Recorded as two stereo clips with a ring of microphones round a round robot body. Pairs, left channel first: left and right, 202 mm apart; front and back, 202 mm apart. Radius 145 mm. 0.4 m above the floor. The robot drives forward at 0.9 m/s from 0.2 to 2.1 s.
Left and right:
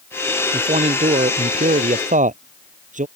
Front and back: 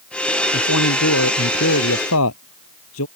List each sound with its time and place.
0.5 s a man speaking: 30° right; by 3.1 s 35° right